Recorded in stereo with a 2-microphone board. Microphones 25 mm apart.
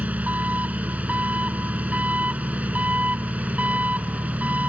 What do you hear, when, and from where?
0.0 s an engine running: 65° right (ahead or behind)